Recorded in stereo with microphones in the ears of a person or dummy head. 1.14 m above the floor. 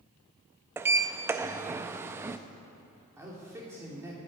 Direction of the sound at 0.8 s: 15° right (ahead or behind).